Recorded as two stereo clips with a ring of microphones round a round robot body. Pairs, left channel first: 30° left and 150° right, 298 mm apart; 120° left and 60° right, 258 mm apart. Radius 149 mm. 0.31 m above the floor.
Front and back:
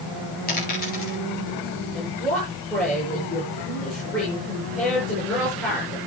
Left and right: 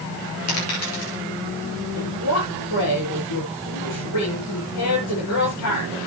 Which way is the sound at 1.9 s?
115° left.